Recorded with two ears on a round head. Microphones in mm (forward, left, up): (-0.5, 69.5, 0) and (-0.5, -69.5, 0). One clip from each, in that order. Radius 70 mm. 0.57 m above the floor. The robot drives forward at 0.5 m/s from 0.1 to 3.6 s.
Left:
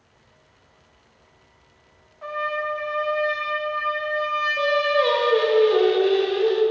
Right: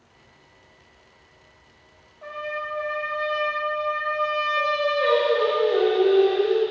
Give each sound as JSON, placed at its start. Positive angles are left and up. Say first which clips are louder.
{"t": 2.2, "sound": "a trumpet", "louder": "left 5 dB", "side_deg": 40, "distance_m": 0.8}
{"t": 4.6, "sound": "singing", "louder": "left 4 dB", "side_deg": 65, "distance_m": 0.9}